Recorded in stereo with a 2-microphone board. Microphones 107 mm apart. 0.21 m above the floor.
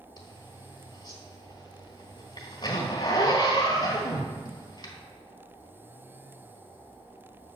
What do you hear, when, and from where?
0.2 s a zipper: 45° left (ahead or behind), 1.2 m